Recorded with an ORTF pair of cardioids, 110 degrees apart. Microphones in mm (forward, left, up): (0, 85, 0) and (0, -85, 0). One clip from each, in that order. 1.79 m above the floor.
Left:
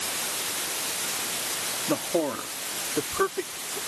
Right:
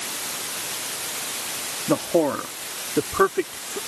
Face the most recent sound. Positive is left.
turn(degrees=-45)